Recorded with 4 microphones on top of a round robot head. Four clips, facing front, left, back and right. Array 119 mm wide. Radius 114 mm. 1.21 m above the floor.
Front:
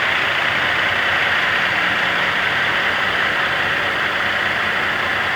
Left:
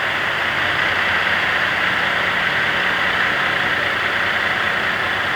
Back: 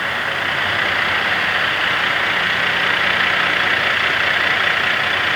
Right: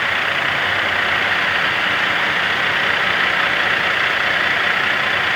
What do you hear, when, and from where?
Only background noise.